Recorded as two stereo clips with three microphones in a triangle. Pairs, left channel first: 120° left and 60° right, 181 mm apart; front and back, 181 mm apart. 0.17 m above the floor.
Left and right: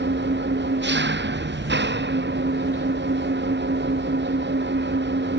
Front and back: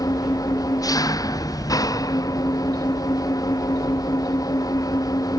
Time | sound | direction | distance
0.0 | an engine running | 70° right | ?